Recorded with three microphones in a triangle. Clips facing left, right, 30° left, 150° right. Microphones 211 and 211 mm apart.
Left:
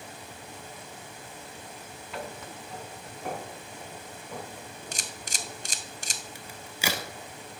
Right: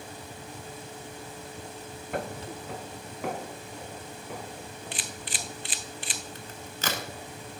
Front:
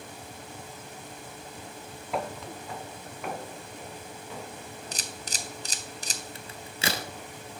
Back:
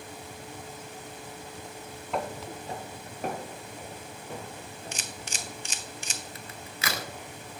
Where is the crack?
20° left, 0.6 m.